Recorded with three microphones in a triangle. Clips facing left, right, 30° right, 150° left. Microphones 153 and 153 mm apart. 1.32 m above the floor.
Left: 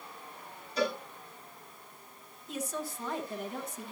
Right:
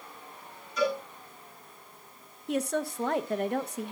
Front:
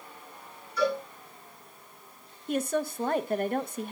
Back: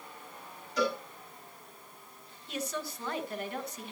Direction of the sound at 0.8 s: 150° left.